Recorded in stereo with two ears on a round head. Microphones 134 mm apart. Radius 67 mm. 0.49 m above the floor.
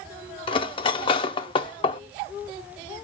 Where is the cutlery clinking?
35° left (ahead or behind), 0.5 m.